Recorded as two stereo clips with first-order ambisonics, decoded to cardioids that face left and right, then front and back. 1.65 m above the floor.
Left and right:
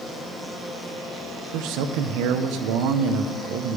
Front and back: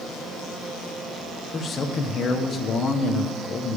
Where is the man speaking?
65° right, 1.0 m.